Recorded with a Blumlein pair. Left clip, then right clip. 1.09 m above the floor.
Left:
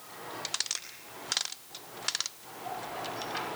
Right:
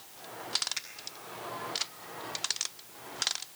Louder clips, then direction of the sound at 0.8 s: Right 7 dB; 30° right.